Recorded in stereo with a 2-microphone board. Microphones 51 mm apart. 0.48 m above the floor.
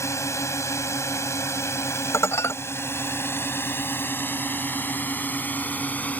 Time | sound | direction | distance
0.0 | a drone | 65° left (ahead or behind) | ?
2.1 | dishes clattering | 65° left (ahead or behind) | ?